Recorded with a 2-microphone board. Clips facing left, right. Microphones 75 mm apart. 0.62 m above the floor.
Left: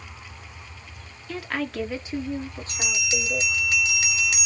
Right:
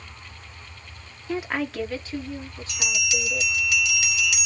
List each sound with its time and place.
1.3 s a woman speaking: 30° right (ahead or behind), 0.8 m; by 3.6 s 55° left (ahead or behind), 1.9 m
2.7 s a bell: 40° left (ahead or behind), 1.8 m